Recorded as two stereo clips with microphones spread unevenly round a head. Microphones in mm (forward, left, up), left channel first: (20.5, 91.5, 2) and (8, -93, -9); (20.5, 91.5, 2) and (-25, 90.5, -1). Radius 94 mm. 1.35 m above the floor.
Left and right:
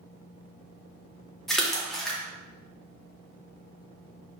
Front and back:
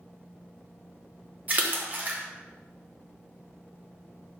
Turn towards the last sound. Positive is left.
turn(degrees=180)